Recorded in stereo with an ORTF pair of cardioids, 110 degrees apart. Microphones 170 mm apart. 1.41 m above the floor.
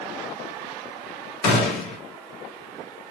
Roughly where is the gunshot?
Ahead left.